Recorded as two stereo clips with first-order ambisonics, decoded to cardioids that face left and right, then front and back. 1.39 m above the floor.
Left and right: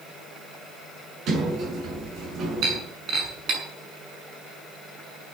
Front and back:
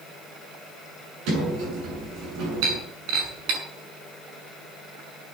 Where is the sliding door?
145° right, 6.5 m.